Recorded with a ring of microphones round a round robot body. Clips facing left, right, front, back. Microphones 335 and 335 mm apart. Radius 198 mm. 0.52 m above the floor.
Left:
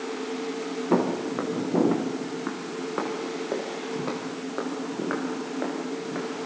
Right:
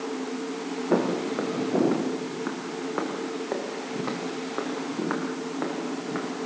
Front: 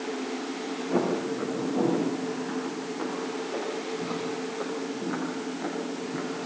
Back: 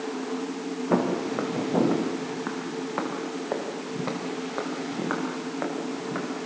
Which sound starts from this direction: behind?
Footsteps, at 0.9 s.